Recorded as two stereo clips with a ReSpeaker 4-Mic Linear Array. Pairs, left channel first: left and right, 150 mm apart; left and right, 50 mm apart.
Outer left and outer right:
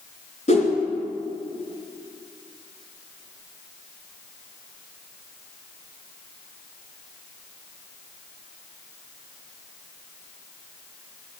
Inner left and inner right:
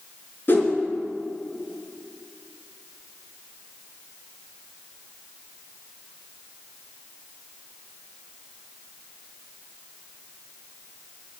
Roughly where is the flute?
No flute in this recording.